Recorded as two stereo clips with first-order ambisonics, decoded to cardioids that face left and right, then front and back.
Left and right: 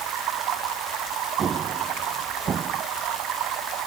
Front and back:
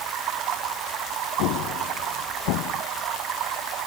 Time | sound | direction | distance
0.0 | running water | 135° right | ?
1.4 | an explosion | 20° right | ?